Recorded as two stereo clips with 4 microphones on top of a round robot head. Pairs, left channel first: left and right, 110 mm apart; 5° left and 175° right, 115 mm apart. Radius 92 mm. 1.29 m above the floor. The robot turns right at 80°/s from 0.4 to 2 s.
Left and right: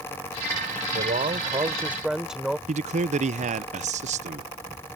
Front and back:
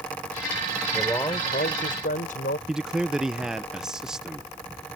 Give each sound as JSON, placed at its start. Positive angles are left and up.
{"t": 0.9, "sound": "a man speaking", "azimuth_deg": -90}
{"t": 2.7, "sound": "a man speaking", "azimuth_deg": -90}